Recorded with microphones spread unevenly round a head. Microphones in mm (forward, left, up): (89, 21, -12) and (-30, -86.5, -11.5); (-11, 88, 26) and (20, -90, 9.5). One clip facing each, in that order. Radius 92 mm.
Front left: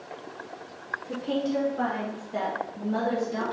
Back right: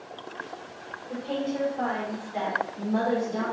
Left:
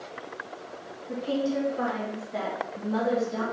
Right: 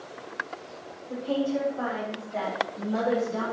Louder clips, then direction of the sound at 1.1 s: Front left 2 dB, even; 65° left.